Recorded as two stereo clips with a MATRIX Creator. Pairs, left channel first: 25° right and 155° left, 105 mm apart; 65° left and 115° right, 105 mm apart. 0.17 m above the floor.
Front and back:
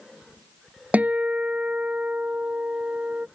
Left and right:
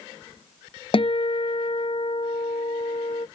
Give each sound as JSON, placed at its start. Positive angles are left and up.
{"t": 0.9, "sound": "a guitar", "azimuth_deg": 85}